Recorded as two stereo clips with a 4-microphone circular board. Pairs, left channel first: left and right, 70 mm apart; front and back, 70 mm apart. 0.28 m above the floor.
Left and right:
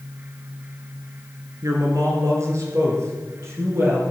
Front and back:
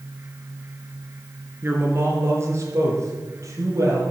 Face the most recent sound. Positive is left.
turn(degrees=-140)